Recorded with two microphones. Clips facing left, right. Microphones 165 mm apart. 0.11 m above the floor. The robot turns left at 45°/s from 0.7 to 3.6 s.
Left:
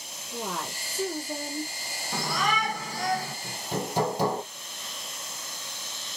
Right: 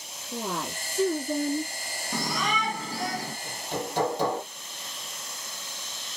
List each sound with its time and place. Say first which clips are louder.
0.3 s a woman speaking: right 2 dB; 40° right, 4 m; by 1.7 s 85° right, 4 m
2.1 s a shout: left 1 dB; 20° right, 1.9 m; by 3.3 s 75° right, 1.9 m
3.4 s hammering: left 1 dB; 5° left (ahead or behind), 3 m; by 4.4 s 10° left (ahead or behind), 3 m